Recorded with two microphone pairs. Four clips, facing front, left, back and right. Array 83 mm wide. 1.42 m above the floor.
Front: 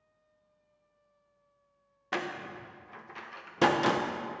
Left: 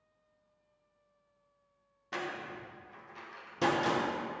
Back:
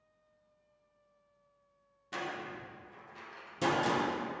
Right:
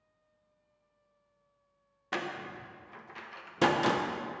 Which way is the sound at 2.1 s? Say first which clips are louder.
Right 2 dB, front 4 dB; 30° right.